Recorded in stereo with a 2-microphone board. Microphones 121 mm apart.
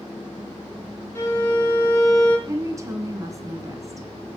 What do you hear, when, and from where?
1.1 s a violin: 20° left (ahead or behind), 4.5 m
2.5 s a woman speaking: 25° right (ahead or behind), 1.8 m